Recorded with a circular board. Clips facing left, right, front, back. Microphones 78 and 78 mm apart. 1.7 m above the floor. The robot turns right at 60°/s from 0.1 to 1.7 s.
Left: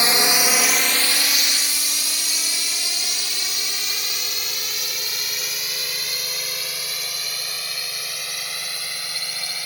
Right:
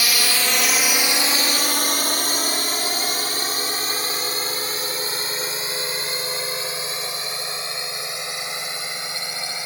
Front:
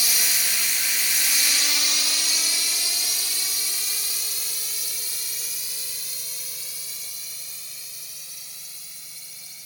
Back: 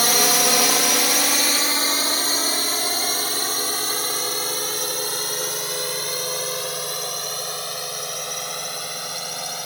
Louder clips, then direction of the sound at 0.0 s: Left 3 dB, back 11 dB; 155° left.